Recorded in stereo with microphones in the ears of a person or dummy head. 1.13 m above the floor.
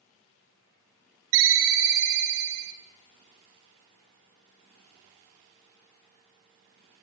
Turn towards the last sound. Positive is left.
turn(degrees=-55)  # may be behind; listen again after turning